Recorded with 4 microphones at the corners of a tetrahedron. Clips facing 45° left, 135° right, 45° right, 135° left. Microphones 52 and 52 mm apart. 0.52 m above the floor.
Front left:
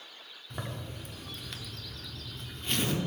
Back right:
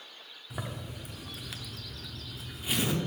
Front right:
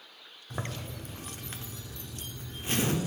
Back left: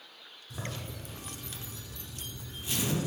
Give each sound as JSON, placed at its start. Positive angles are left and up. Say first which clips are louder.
{"t": 0.5, "sound": "a zipper", "louder": "even, front right 2 dB", "azimuth_deg": -55, "distance_m": 0.8}